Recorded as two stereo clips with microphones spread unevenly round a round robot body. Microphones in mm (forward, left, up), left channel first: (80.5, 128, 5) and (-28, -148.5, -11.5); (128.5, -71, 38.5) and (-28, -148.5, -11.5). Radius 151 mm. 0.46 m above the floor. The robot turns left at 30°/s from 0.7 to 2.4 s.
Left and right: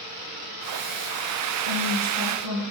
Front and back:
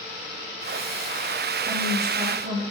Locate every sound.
1.7 s a woman speaking: 110° right, 3.5 m; by 2.6 s 135° right, 3.5 m